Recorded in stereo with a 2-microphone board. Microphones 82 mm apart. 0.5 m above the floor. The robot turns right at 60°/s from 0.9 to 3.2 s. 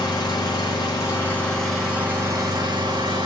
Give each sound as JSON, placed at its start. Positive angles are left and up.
{"t": 0.0, "sound": "an engine running", "azimuth_deg": 130, "distance_m": 5.5}